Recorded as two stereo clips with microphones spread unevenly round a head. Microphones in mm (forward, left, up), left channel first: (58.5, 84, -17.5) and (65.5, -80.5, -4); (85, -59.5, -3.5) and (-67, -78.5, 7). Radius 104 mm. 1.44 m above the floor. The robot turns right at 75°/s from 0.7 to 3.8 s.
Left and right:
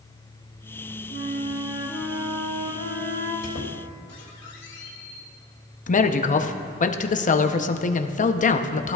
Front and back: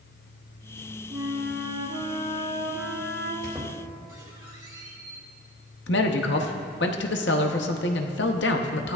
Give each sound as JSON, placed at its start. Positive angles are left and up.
{"t": 1.1, "sound": "a flute", "azimuth_deg": 130, "distance_m": 3.0}
{"t": 3.4, "sound": "a squeak", "azimuth_deg": 90, "distance_m": 2.0}
{"t": 5.9, "sound": "a man speaking", "azimuth_deg": 50, "distance_m": 0.8}